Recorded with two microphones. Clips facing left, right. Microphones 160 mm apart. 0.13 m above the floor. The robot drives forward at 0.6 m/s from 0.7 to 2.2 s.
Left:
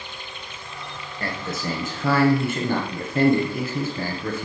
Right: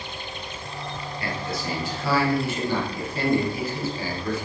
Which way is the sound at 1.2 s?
45° left (ahead or behind).